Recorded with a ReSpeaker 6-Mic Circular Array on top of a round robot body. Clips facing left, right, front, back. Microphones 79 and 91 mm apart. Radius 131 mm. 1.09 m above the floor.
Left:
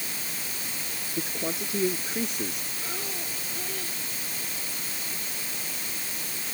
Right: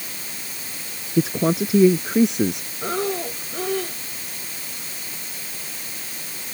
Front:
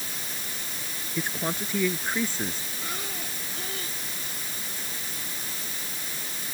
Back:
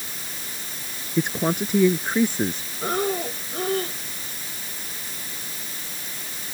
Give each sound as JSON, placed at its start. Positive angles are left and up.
{"t": 1.2, "sound": "a man speaking", "azimuth_deg": -110}
{"t": 2.8, "sound": "breathing", "azimuth_deg": -130}